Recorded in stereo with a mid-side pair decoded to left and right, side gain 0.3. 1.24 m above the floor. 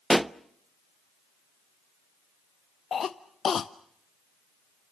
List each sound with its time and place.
0.1 s a pop: 15° right, 0.6 m
2.9 s a cough: 65° left, 0.5 m